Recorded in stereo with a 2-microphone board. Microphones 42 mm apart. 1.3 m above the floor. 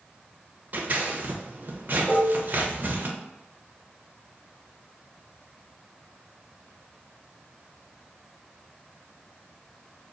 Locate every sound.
0.7 s scissors: 45° right (ahead or behind), 0.8 m
2.1 s dishes clattering: 40° left (ahead or behind), 1.3 m